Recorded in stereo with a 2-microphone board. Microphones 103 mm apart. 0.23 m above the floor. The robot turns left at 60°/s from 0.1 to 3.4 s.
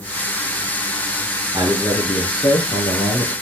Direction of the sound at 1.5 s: 150° right.